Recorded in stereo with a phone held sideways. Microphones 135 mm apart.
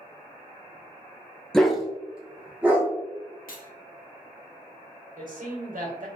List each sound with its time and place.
1.5 s a dog barking: 5° left (ahead or behind), 0.5 m; by 2.9 s 15° right (ahead or behind), 1.3 m
3.5 s cutlery clinking: 75° left (ahead or behind), 0.6 m
5.2 s a man speaking: 75° right (ahead or behind), 1.3 m